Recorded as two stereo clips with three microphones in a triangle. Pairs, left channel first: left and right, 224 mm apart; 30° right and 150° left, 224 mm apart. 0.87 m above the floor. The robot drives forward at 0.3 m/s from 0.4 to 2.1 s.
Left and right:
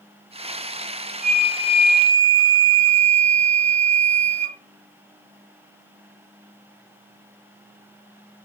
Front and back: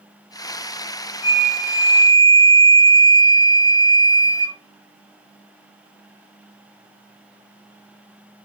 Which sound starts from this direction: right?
A flute, at 1.2 s.